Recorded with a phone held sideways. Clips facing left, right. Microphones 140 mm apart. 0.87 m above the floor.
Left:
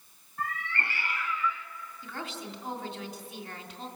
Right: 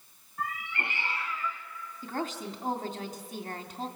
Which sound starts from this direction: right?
A woman speaking, at 2.0 s.